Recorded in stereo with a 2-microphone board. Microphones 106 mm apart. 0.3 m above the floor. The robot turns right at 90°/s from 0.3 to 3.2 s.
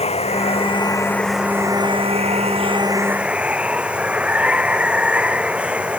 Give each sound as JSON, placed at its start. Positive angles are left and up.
{"t": 0.0, "sound": "running water", "azimuth_deg": 90}